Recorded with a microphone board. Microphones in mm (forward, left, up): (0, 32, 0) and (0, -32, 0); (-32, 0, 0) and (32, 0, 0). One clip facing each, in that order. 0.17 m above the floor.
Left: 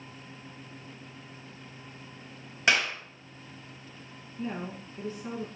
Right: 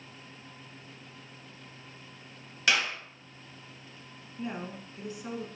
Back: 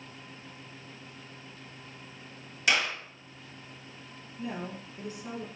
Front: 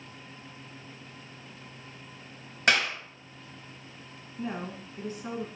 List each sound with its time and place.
2.7 s a clap: 30° left, 2.5 m
4.4 s a woman speaking: 20° right, 1.5 m